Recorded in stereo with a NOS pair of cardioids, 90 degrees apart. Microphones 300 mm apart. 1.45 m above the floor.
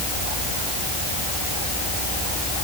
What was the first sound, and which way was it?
Only background noise.